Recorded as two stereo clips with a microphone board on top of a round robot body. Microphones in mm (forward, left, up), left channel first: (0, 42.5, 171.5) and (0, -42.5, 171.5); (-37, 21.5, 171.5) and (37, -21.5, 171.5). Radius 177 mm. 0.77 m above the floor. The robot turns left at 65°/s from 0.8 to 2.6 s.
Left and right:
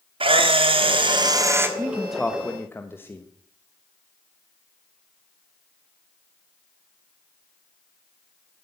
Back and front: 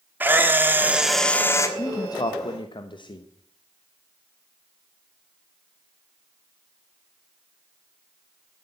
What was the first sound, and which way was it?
A camera shutter, 100° right.